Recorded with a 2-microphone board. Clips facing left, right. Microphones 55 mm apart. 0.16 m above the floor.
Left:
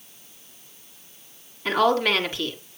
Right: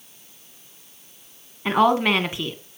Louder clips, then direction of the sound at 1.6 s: Right 2 dB; 20° right (ahead or behind).